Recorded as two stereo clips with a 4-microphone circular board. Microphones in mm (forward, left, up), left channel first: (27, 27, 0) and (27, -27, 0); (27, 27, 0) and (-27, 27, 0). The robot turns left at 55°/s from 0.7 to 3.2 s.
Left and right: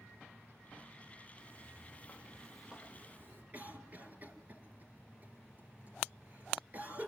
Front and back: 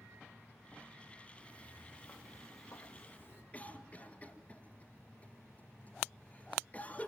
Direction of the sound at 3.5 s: 50° right.